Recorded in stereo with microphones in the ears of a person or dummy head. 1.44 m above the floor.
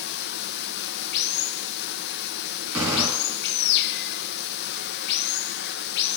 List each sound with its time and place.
0.0 s running water: 60° left (ahead or behind), 0.9 m
2.7 s a gunshot: 10° right (ahead or behind), 4.5 m